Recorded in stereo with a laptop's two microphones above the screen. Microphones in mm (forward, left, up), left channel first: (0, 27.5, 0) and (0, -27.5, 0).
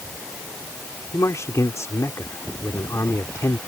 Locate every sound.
1.1 s a man speaking: 65° left (ahead or behind)